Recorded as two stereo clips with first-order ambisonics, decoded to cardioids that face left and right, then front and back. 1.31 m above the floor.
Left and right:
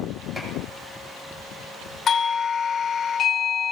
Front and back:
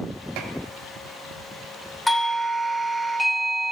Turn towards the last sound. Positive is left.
turn(degrees=80)